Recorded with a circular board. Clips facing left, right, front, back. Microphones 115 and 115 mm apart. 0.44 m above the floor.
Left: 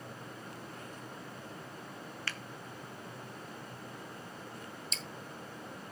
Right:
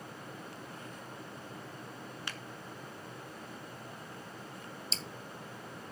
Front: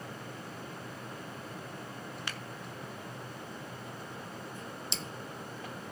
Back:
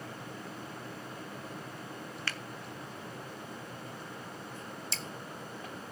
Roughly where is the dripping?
Ahead right.